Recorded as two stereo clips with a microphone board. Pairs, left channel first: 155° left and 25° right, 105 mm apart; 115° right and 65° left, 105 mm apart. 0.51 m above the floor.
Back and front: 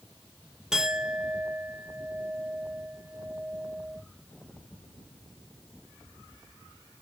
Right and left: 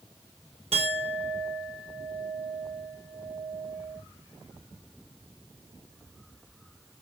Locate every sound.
0.7 s a clink: 60° left, 1.0 m